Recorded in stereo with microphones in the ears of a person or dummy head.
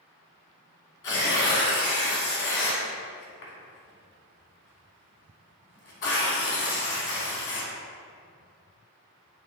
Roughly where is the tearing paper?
Left.